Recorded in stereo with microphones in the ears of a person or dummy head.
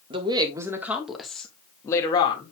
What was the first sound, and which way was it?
A woman speaking, 30° right (ahead or behind).